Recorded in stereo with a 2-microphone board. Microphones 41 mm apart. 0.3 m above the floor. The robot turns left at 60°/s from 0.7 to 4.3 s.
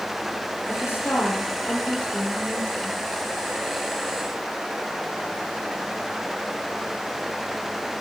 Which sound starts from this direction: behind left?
A woman speaking, at 0.7 s.